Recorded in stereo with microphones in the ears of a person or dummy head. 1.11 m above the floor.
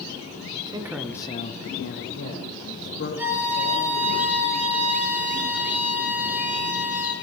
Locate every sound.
0.5 s a man speaking: 30° right (ahead or behind), 1.1 m; by 4.2 s 75° left (ahead or behind), 3.5 m
3.2 s a violin: 10° right (ahead or behind), 3.5 m